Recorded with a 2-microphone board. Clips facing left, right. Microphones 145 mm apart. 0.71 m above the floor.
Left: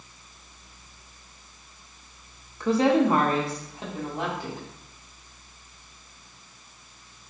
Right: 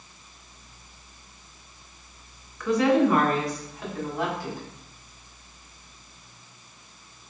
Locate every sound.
2.6 s a woman speaking: 30° left (ahead or behind), 0.7 m; by 4.6 s 25° left (ahead or behind), 2.0 m